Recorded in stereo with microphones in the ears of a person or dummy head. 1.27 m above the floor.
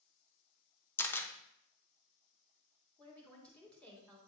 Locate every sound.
1.0 s a camera shutter: 10° left (ahead or behind), 0.7 m
3.0 s a woman speaking: 10° left (ahead or behind), 2.5 m